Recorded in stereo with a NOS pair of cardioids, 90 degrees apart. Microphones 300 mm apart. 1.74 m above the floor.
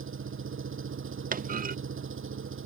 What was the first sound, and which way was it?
An engine running, 45° right.